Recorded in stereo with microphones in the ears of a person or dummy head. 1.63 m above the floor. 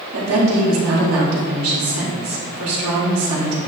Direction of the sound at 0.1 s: 85° right.